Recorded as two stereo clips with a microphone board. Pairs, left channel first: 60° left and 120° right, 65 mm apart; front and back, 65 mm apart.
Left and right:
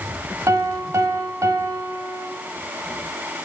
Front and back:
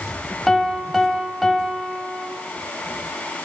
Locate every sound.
0.5 s a piano: 90° right, 0.6 m